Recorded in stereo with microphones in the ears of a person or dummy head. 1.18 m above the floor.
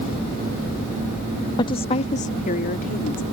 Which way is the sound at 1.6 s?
25° left (ahead or behind).